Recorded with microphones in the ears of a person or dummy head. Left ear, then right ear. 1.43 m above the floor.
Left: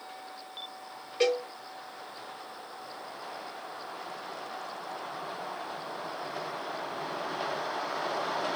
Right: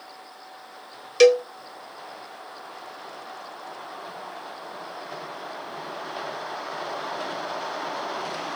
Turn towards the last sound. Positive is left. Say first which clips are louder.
# right 11 dB
turn(degrees=-70)  # may be behind; listen again after turning